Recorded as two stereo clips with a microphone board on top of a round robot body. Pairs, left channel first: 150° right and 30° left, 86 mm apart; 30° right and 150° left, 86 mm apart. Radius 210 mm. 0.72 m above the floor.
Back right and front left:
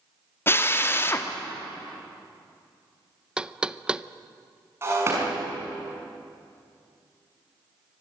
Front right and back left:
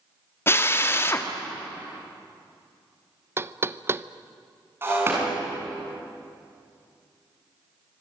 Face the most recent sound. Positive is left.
turn(degrees=90)